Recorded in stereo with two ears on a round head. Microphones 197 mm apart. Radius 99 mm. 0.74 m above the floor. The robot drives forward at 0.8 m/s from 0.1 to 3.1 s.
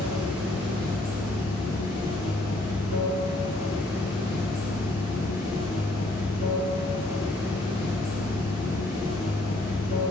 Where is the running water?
75° right (ahead or behind), 0.7 m; by 10.1 s 15° right (ahead or behind), 2.5 m.